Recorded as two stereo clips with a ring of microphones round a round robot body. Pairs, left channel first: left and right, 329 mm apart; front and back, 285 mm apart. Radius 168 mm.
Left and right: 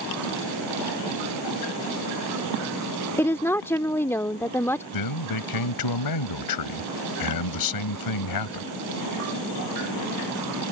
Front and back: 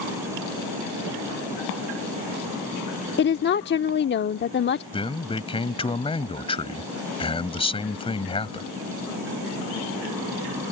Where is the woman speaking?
10° left.